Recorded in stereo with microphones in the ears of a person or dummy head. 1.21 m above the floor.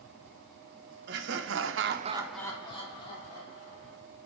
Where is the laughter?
55° right (ahead or behind), 1.3 m; by 4.0 s 35° left (ahead or behind), 2.5 m.